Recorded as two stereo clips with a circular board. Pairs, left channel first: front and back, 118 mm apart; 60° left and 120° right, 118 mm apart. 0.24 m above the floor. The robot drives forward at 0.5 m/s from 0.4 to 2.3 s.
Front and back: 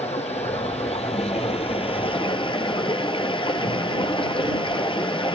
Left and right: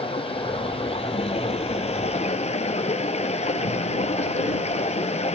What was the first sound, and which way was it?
Running water, 25° left.